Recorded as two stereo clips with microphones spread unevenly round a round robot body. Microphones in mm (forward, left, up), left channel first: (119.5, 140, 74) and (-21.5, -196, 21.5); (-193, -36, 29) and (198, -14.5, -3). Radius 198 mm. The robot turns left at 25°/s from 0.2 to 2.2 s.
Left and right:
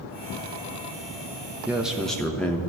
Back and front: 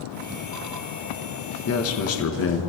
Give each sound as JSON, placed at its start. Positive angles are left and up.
{"t": 1.7, "sound": "a man speaking", "azimuth_deg": -175, "distance_m": 1.0}